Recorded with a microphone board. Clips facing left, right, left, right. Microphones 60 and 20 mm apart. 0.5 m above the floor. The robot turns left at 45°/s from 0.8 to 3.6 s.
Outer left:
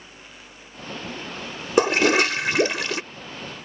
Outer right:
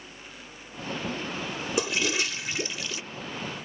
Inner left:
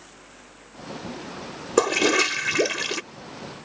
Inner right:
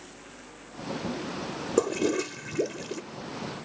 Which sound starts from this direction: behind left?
A toilet flushing, at 1.8 s.